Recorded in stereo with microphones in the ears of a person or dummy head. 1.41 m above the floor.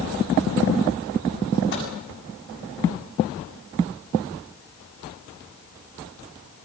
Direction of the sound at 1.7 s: 60° left (ahead or behind).